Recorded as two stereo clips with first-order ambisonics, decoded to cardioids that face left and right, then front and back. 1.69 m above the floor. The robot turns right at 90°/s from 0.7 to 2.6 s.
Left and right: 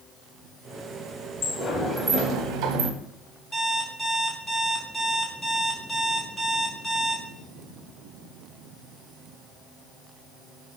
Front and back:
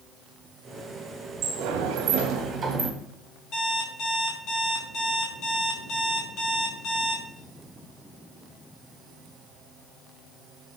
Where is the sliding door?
140° left, 0.6 m; by 2.9 s 115° right, 0.6 m.